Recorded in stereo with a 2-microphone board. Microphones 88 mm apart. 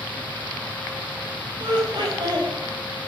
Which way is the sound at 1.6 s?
55° right (ahead or behind).